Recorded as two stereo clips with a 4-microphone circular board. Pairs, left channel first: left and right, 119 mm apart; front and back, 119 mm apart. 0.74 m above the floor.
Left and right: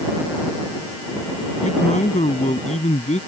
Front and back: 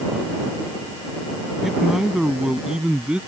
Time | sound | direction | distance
1.6 | a man speaking | 95° left | ?